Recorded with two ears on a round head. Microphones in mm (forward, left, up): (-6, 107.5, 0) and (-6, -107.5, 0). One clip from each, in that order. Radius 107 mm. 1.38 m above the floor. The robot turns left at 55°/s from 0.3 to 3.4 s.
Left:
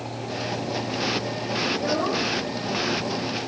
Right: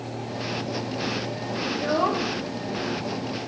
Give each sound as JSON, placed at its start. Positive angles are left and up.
{"t": 1.7, "sound": "a child speaking", "azimuth_deg": -5, "distance_m": 1.3}